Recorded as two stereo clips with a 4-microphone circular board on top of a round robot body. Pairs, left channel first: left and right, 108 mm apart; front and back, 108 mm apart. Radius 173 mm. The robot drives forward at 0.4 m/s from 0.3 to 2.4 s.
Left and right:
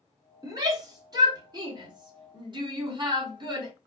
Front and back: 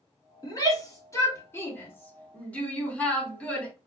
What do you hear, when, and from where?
0.4 s a shout: 45° right, 2 m; by 3.7 s 75° right, 1.8 m